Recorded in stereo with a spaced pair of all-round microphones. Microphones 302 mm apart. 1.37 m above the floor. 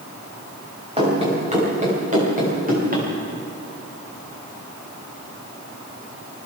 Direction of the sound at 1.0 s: 20° right (ahead or behind).